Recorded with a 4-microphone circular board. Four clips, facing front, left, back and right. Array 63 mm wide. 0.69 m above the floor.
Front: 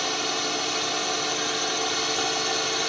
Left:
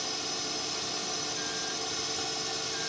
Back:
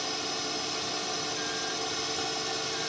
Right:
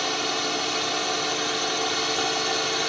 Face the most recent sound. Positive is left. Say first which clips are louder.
# right 11 dB, front 7 dB
turn(degrees=-60)